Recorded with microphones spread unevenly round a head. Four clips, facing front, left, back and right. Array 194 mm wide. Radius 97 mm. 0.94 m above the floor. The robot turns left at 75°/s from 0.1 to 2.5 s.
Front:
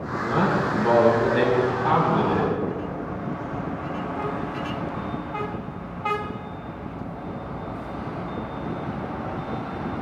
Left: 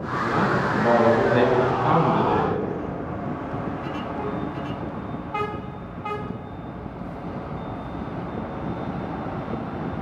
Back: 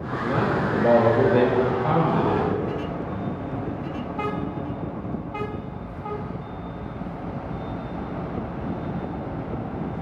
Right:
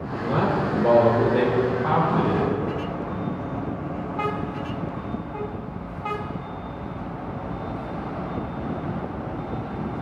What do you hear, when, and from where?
0.2 s a man speaking: 110° right, 4 m; by 2.5 s 75° left, 4 m